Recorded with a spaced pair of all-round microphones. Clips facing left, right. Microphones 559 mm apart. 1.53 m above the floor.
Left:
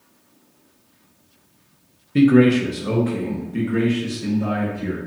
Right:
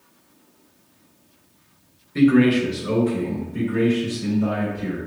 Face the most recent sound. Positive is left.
turn(degrees=85)